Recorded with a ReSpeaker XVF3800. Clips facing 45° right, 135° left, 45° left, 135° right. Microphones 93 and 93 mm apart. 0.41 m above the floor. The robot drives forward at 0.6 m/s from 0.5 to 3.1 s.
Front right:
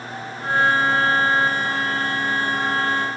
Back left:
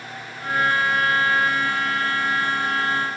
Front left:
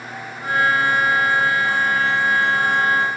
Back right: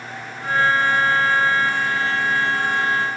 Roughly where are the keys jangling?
I don't hear keys jangling.